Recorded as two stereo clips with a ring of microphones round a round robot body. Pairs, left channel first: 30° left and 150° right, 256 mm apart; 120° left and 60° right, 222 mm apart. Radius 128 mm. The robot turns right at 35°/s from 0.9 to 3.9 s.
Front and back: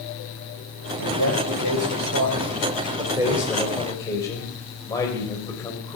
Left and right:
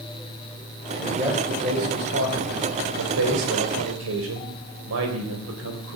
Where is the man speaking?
150° right, 3.5 m; by 6.0 s 45° right, 3.5 m.